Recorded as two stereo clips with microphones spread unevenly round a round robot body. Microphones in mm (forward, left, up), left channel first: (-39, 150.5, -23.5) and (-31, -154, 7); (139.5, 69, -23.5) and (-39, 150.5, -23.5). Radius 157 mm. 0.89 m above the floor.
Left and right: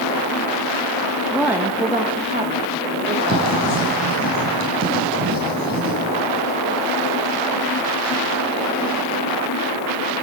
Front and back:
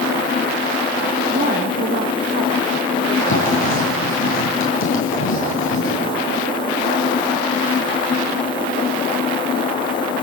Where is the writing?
30° right, 5 m.